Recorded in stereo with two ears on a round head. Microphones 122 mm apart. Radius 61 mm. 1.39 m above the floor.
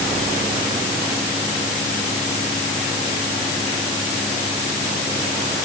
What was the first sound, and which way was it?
Only background noise.